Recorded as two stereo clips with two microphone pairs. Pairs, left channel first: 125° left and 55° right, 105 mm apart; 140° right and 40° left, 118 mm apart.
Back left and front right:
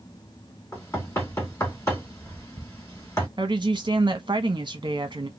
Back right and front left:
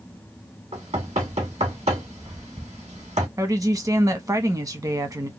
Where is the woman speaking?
15° right, 0.8 m.